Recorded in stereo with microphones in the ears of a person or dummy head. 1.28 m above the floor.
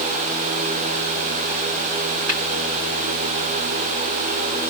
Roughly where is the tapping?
Right.